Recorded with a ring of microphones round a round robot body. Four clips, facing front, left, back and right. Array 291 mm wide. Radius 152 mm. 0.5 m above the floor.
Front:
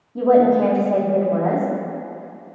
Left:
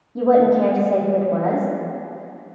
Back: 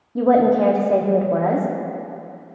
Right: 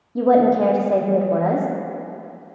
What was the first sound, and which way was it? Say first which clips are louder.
A woman speaking: left 1 dB, front 1 dB; 145° right.